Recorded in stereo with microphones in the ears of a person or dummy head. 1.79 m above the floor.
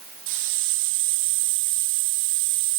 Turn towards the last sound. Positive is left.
turn(degrees=-65)  # may be behind; listen again after turning